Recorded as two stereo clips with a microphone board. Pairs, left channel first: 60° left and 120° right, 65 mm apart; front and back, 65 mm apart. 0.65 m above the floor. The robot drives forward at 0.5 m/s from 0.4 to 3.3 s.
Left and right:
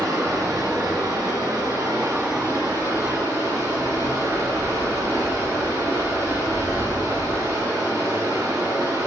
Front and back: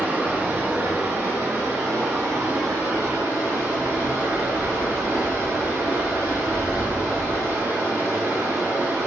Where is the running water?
125° right, 2.5 m; by 9.1 s 145° right, 3.5 m.